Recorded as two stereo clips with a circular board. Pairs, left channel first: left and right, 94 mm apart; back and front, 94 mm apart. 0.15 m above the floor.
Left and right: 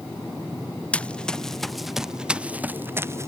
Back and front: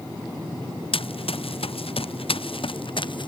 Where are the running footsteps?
165° left; by 3.3 s 150° right.